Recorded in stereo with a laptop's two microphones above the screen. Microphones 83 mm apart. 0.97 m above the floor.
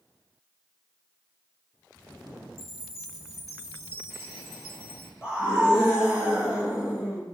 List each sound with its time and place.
2.6 s a chime: 35° right (ahead or behind), 1.6 m
5.2 s a scream: 15° right (ahead or behind), 2 m